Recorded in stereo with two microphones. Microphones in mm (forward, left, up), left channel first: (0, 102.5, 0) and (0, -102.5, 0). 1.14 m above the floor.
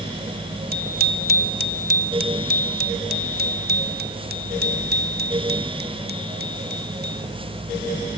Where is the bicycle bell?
45° right (ahead or behind); by 7.3 s 55° right (ahead or behind).